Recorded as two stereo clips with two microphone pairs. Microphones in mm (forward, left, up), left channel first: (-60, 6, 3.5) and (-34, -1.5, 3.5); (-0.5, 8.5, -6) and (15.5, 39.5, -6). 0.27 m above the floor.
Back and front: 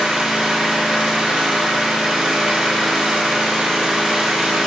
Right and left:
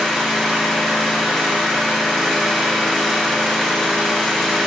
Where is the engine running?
25° right, 1.3 m.